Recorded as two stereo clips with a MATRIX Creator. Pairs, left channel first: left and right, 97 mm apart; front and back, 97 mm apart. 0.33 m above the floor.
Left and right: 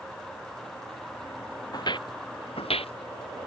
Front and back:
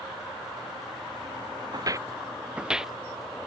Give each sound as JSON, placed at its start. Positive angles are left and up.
{"t": 1.7, "sound": "footsteps", "azimuth_deg": 135}